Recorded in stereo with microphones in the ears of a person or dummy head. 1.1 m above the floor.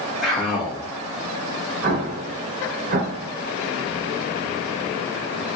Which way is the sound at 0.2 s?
Centre (ahead or behind).